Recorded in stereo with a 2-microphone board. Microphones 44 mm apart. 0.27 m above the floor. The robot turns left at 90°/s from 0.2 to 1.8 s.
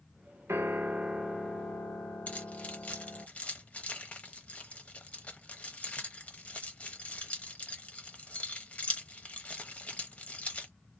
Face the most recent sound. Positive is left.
turn(degrees=30)  # may be behind; listen again after turning